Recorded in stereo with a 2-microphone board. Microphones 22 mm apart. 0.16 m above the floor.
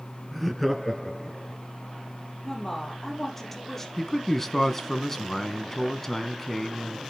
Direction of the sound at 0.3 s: 5° right (ahead or behind).